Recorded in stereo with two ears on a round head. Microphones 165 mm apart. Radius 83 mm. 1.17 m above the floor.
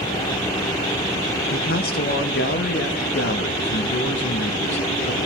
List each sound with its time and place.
1.5 s a man speaking: 50° left (ahead or behind), 1.0 m; by 5.2 s 65° left (ahead or behind), 3 m